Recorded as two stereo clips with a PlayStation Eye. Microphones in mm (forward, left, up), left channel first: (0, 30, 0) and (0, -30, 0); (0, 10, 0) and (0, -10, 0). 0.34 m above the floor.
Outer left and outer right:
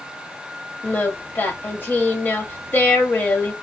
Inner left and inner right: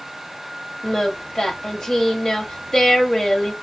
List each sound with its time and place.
0.8 s singing: 35° left (ahead or behind), 1.3 m